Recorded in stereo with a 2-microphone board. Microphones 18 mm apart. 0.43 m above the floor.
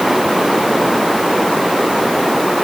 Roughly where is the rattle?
I don't hear a rattle.